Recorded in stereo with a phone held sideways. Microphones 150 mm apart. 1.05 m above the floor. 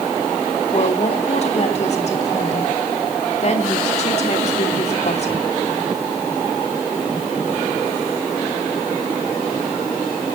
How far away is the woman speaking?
About 2.5 m.